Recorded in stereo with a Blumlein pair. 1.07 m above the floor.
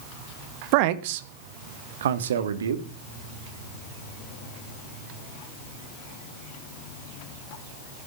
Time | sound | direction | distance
0.7 | a man speaking | 45° right | 1.0 m